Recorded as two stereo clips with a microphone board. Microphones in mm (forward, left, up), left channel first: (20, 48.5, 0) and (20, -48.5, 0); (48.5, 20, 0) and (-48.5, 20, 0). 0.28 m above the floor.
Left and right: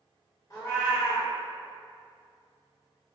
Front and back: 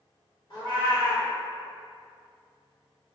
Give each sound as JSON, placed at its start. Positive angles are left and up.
{"t": 0.5, "sound": "a cat meowing", "azimuth_deg": 40, "distance_m": 1.0}